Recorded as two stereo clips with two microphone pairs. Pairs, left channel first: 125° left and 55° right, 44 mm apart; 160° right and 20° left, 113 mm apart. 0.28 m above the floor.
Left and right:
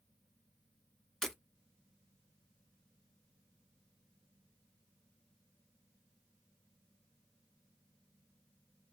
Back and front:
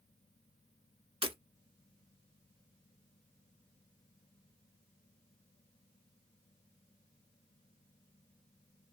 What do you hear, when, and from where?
1.2 s breaking glass: 45° left, 0.8 m